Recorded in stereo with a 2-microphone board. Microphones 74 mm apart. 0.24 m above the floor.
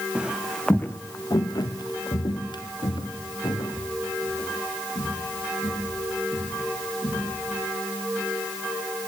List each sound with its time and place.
0.1 s footsteps: 15° right (ahead or behind), 1.4 m; by 7.5 s 70° left (ahead or behind), 9 m